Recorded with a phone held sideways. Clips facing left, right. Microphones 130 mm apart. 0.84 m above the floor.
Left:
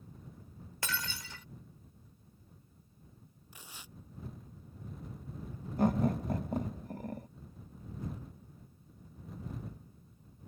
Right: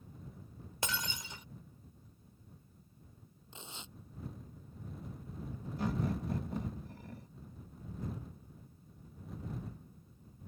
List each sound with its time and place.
0.8 s breaking glass: 20° right (ahead or behind)
3.5 s tearing paper: 25° right (ahead or behind)
5.8 s laughter: 50° left (ahead or behind)